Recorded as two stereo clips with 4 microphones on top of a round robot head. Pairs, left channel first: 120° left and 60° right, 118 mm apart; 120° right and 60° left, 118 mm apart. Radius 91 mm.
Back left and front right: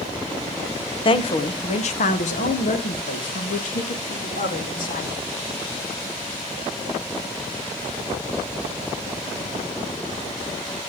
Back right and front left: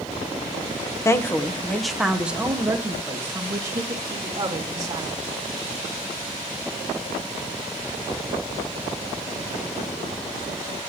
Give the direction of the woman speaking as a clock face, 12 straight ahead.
6 o'clock.